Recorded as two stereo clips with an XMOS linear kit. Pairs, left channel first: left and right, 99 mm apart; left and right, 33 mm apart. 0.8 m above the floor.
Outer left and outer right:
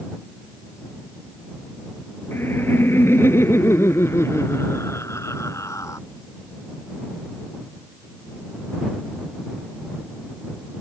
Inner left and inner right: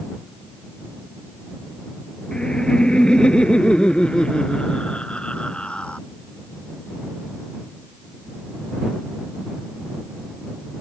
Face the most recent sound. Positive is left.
turn(degrees=35)  # may be behind; listen again after turning